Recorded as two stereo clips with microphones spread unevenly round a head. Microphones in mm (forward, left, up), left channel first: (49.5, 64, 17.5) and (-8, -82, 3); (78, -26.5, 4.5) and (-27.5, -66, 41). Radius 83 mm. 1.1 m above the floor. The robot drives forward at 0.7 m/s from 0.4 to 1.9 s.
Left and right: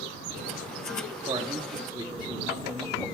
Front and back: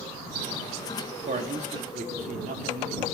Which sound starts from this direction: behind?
A man speaking, at 1.3 s.